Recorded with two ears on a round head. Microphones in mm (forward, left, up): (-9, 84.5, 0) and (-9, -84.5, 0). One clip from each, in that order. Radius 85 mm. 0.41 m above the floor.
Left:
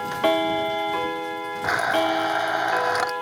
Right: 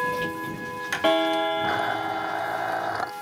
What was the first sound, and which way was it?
A blender, 50° left (ahead or behind).